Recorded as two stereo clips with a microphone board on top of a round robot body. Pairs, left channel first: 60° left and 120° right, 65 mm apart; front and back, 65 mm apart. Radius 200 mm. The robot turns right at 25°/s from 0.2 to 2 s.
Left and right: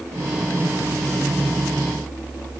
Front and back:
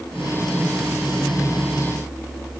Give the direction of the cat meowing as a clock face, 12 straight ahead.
I don't hear a cat meowing.